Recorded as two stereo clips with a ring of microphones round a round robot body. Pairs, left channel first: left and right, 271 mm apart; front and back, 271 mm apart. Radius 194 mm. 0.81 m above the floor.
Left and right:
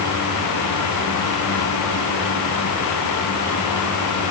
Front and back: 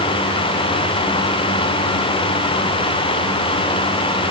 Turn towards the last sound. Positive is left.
No sound to turn to.